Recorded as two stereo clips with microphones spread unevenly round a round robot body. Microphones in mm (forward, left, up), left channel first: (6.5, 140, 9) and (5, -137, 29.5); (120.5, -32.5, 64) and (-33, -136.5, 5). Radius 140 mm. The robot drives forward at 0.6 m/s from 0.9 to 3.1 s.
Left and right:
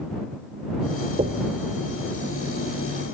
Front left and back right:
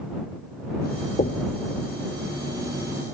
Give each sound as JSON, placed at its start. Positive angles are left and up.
{"t": 1.2, "sound": "knocking", "azimuth_deg": -25, "distance_m": 1.3}